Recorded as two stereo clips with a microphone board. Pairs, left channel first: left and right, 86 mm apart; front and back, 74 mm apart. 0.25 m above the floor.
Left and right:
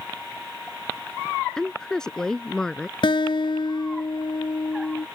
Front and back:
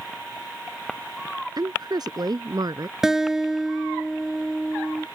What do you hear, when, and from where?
1.6 s a woman speaking: 170° left
3.0 s a guitar: 95° left